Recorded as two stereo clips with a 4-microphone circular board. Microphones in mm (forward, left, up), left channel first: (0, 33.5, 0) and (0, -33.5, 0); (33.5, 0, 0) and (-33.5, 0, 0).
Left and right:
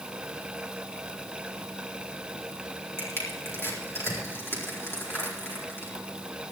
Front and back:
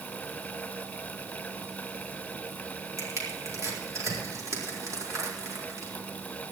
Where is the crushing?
140° left, 4 m.